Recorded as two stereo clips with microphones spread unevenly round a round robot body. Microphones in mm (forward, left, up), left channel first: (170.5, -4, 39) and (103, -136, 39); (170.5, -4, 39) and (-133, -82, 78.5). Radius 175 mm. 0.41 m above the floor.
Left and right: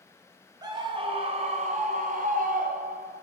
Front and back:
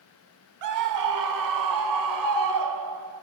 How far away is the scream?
About 1.5 m.